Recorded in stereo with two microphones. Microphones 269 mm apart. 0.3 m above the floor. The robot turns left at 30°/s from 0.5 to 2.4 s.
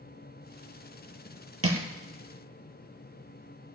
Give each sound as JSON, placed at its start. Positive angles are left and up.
{"t": 1.6, "sound": "crushing", "side_deg": -60, "distance_m": 1.5}